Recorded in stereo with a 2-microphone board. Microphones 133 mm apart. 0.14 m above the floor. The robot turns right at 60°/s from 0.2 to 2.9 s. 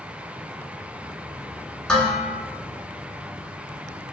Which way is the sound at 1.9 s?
10° left.